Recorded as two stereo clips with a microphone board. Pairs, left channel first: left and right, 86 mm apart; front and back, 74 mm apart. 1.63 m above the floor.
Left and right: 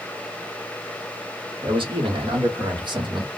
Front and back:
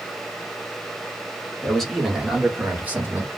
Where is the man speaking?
80° right, 1.4 m; by 3.3 s 120° right, 1.5 m.